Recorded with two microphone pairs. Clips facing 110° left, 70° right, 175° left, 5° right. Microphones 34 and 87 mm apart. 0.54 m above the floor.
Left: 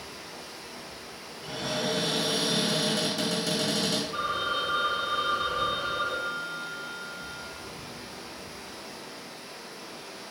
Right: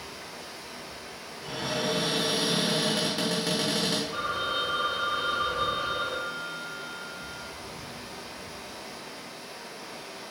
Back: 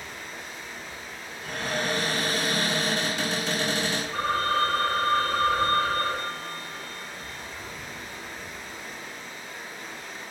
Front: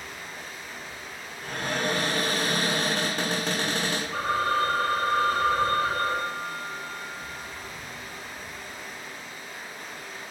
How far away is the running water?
About 1.7 m.